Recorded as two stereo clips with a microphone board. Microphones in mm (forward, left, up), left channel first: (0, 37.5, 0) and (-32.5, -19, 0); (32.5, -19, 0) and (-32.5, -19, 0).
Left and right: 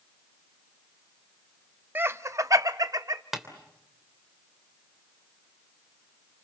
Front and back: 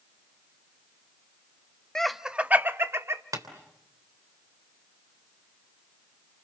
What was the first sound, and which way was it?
Laughter, 75° right.